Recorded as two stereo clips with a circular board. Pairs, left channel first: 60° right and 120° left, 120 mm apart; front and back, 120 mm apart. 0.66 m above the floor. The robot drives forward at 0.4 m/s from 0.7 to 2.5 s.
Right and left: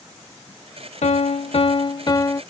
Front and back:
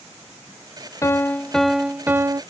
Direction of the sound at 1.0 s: 65° right.